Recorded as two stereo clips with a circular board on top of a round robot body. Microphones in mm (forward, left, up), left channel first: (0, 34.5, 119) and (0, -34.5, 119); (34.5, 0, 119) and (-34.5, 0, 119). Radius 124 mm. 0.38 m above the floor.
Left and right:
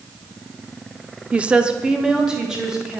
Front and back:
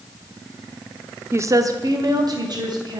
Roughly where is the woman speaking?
Behind right.